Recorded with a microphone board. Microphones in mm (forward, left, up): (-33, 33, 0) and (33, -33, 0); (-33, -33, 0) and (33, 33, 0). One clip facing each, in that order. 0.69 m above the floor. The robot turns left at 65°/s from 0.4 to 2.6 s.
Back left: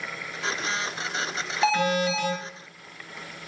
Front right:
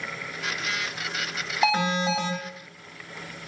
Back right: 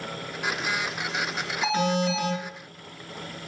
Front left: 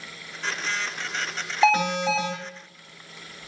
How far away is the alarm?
About 3 m.